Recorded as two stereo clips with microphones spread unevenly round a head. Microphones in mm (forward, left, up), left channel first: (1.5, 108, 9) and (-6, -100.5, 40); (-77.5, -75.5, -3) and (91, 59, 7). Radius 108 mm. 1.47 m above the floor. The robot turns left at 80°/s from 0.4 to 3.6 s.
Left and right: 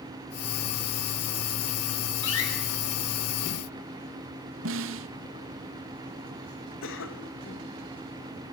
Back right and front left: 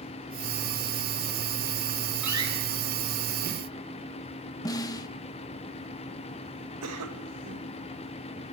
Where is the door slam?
125° left, 9 m; by 2.5 s 100° left, 9 m.